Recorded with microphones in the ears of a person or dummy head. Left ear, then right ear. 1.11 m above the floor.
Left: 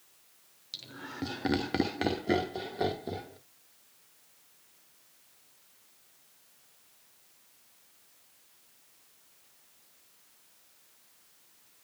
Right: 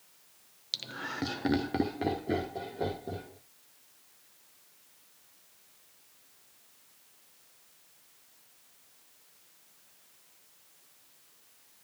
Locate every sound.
0.7 s laughter: 35° right (ahead or behind), 0.8 m; by 3.4 s 50° left (ahead or behind), 1.7 m